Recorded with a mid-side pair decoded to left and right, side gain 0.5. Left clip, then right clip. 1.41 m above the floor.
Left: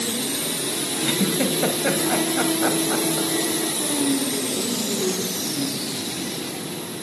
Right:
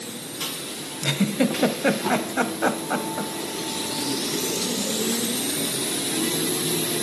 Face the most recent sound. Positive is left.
turn(degrees=-30)